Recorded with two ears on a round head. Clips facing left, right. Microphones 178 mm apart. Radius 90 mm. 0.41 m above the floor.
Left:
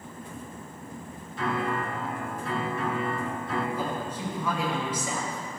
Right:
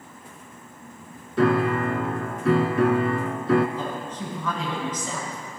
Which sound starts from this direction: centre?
A woman speaking, at 3.8 s.